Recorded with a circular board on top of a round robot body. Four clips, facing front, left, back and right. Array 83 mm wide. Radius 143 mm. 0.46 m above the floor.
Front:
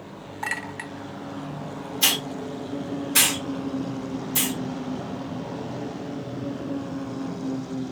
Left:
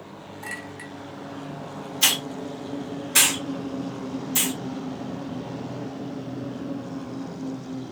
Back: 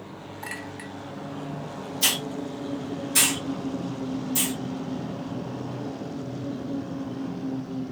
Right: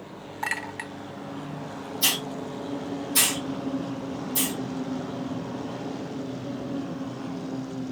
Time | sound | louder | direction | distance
0.4 | a clink | right 6 dB, front 6 dB | 55° right | 0.9 m
2.0 | a hiss | left 3 dB, front 1 dB | 75° left | 1.4 m